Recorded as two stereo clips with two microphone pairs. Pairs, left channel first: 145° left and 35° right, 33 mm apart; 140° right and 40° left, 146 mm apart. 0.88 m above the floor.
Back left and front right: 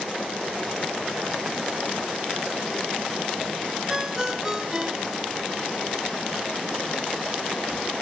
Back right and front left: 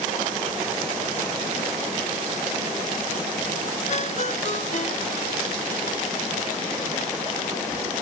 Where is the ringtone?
105° right.